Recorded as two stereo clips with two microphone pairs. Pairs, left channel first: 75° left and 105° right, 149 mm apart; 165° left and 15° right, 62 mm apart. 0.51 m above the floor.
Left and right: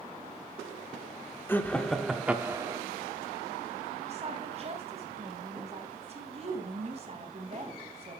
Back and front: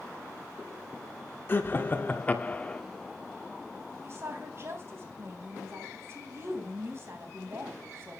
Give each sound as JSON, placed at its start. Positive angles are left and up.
{"t": 1.5, "sound": "laughter", "azimuth_deg": 145, "distance_m": 1.2}
{"t": 4.0, "sound": "a woman speaking", "azimuth_deg": -60, "distance_m": 3.5}